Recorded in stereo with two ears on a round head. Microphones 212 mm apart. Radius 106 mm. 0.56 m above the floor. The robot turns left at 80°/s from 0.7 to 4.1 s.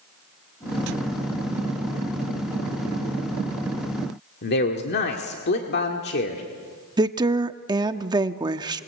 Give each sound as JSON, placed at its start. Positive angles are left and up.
{"t": 4.4, "sound": "a man speaking", "side_deg": 50, "distance_m": 1.8}
{"t": 7.0, "sound": "a woman speaking", "side_deg": -20, "distance_m": 0.7}